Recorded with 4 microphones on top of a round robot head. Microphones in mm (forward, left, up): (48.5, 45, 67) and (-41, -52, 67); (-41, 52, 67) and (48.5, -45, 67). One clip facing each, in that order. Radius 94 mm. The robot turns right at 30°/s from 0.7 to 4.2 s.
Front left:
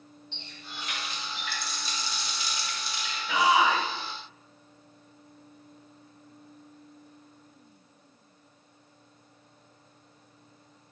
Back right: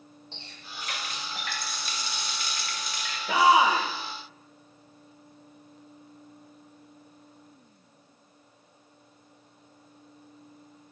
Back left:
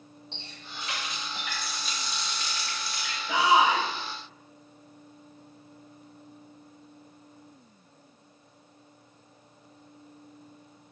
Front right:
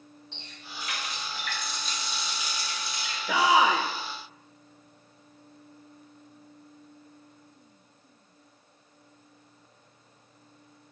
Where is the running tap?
175° right, 0.7 m; by 3.2 s 105° right, 0.7 m.